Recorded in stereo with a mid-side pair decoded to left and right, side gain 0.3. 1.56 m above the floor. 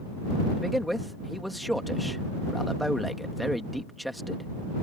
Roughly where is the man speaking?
Ahead.